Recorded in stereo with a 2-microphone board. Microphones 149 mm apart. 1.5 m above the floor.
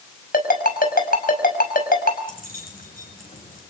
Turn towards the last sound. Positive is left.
turn(degrees=70)  # may be behind; listen again after turning